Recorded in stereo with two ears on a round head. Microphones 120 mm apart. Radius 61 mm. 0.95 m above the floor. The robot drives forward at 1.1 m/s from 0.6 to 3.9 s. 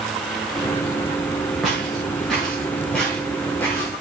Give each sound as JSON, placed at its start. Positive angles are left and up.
{"t": 1.6, "sound": "footsteps", "side_deg": 0, "distance_m": 8.0}